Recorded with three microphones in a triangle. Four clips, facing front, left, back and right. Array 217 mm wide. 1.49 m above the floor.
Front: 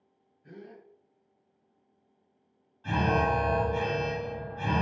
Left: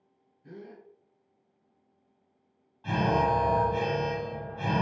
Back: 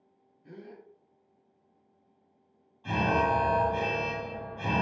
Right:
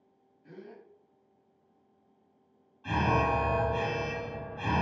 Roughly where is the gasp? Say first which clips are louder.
Left 2 dB, back 1 dB; left.